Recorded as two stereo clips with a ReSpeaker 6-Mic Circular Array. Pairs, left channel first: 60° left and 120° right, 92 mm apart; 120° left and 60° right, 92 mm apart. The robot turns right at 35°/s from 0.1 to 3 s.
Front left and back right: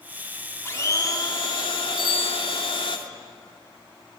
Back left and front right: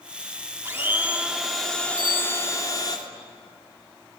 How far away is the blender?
About 2.5 m.